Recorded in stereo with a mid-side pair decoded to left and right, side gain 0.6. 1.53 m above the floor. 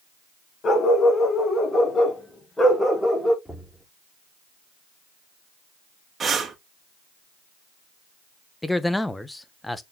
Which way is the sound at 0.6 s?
40° left.